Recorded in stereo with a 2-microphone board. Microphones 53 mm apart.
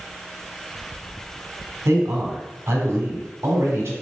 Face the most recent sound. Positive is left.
turn(degrees=-60)  # may be behind; listen again after turning